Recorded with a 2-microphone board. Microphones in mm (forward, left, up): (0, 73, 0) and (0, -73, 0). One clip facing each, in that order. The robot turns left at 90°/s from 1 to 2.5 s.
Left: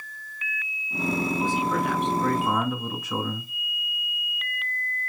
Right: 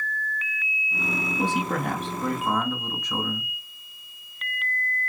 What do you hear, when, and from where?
1.4 s a man speaking: 85° right, 2.5 m; by 3.5 s 175° left, 2.5 m